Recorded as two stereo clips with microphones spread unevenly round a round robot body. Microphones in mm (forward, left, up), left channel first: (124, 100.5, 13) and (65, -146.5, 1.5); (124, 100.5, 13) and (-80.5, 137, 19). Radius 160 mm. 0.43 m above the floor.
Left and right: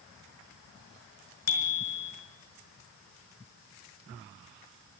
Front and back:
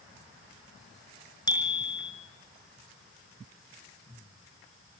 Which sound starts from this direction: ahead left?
A bicycle bell, at 1.5 s.